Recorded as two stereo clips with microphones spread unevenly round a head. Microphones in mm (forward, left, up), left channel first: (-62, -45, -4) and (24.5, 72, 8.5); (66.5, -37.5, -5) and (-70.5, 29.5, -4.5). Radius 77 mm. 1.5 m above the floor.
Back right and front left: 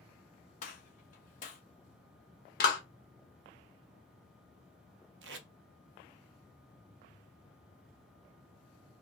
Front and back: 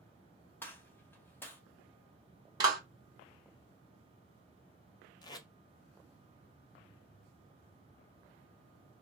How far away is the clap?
About 1.1 m.